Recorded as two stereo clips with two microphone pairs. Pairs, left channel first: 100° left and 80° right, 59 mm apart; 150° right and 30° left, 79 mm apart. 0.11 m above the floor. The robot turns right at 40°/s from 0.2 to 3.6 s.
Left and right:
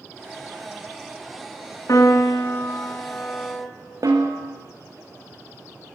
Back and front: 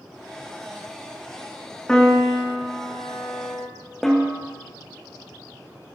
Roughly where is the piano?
Behind left.